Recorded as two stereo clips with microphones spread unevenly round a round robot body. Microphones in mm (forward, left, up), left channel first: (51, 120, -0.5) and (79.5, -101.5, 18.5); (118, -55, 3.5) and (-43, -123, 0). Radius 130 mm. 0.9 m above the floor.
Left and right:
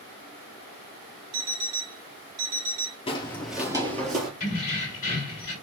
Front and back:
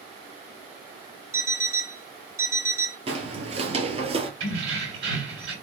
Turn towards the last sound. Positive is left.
turn(degrees=160)